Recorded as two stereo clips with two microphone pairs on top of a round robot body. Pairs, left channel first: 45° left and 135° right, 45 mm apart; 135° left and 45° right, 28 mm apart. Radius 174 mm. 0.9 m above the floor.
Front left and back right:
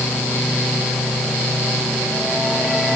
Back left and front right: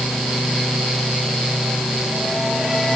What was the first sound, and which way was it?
Only background noise.